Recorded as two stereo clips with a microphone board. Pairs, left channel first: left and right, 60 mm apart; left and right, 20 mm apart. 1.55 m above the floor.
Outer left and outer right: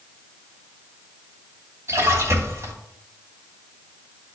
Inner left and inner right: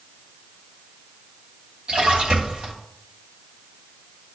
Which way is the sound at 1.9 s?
55° right (ahead or behind).